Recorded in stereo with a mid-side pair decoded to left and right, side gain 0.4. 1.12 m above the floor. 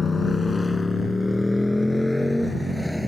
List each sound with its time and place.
0.0 s a motorcycle: 35° left; by 3.1 s straight ahead